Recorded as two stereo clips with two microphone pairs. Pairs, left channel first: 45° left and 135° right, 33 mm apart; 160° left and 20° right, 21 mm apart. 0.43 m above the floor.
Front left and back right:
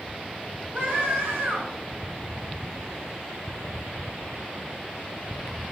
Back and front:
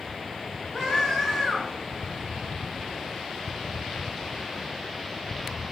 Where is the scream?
125° right, 5 m.